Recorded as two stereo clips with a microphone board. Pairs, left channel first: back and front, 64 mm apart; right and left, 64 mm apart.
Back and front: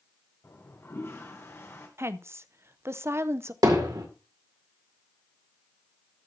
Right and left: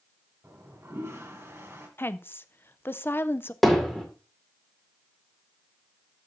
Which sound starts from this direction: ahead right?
A woman speaking, at 2.0 s.